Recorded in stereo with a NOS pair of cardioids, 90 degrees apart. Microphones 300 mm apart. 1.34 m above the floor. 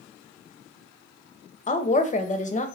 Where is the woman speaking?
25° left, 0.5 m.